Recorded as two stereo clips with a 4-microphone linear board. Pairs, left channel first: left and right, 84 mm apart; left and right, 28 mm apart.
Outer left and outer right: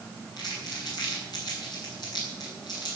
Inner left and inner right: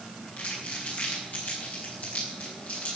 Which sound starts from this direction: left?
Crumpling, at 0.4 s.